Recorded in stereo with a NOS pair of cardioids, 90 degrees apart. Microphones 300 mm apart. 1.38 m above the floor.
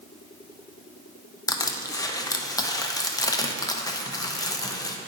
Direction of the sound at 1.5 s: 10° left.